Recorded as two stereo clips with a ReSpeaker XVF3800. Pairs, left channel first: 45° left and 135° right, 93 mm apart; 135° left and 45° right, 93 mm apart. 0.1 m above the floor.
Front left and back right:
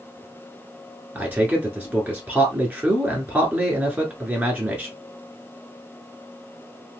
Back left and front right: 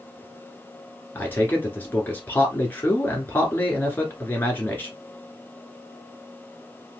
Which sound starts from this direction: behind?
A man speaking, at 1.1 s.